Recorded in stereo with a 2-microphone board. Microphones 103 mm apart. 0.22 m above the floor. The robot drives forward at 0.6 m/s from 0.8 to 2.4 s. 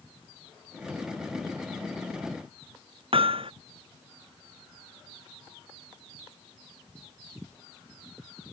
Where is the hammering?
60° right (ahead or behind).